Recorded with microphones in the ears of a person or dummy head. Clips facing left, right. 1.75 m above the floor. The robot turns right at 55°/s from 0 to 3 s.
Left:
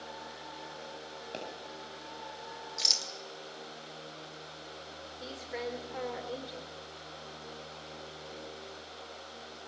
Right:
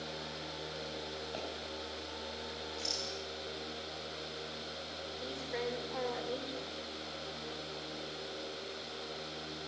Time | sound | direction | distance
1.3 | a pop | 40° left (ahead or behind) | 9 m
2.8 | a rattle | 75° left (ahead or behind) | 2 m
5.2 | a woman speaking | 5° left (ahead or behind) | 5.5 m